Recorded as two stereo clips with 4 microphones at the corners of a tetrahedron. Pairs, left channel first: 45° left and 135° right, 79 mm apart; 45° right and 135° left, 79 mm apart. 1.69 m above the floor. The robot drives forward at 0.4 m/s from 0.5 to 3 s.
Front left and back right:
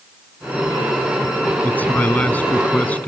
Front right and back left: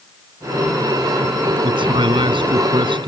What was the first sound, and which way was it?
A man speaking, 115° left.